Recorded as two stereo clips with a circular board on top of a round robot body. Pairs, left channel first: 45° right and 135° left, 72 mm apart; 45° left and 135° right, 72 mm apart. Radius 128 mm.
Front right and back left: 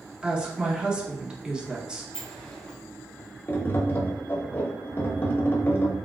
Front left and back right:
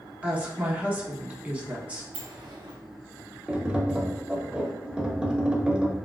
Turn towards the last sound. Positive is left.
turn(degrees=-75)